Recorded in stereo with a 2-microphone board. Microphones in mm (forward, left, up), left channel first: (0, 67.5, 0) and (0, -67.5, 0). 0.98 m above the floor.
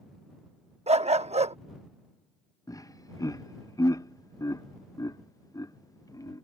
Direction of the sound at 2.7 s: 25° left (ahead or behind).